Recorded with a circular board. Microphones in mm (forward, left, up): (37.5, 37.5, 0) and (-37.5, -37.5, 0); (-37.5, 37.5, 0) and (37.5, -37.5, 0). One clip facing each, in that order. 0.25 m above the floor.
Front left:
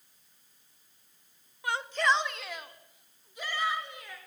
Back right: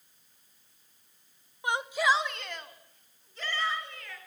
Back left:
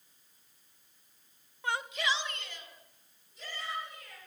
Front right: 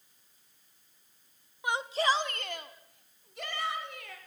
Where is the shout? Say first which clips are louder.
Back right 1 dB, front right 5 dB; 100° right, 1.0 m; by 4.2 s 30° right, 4 m.